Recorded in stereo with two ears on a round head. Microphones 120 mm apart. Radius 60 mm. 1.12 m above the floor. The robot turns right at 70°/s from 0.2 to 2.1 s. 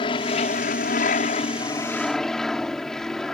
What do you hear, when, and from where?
0.0 s an aircraft: 45° left; by 3.3 s 175° left